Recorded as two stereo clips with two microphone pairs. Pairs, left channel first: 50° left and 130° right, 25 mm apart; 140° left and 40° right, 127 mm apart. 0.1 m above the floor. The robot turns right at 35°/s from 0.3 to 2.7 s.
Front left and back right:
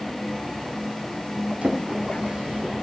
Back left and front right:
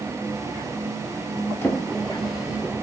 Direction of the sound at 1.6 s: 150° right.